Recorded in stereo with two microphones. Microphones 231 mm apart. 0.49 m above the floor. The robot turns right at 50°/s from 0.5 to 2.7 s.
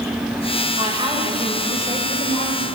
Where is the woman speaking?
35° right, 1.9 m; by 2.7 s 60° left, 1.9 m.